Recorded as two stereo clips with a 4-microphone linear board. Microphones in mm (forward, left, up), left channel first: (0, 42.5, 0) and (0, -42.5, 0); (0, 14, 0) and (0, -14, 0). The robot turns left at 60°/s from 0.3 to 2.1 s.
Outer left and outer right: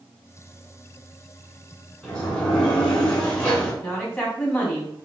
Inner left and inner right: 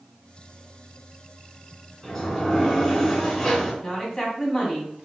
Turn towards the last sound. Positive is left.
turn(degrees=20)  # may be behind; listen again after turning